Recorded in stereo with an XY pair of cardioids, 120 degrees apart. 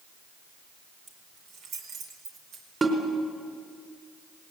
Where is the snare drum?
25° right, 4.5 m.